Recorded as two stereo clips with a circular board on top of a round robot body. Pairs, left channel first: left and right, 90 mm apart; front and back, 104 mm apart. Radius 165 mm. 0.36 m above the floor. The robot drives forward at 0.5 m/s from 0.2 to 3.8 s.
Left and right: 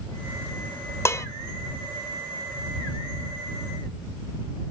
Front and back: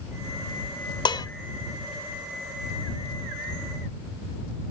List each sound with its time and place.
1.1 s dishes clattering: 35° left, 0.8 m; by 1.3 s 40° left, 0.8 m